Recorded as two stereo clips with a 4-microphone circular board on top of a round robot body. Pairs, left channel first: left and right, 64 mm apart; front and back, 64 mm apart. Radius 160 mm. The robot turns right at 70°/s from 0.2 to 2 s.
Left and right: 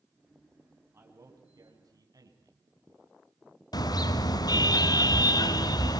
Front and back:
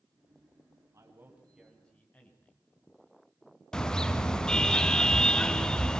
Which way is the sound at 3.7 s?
80° left.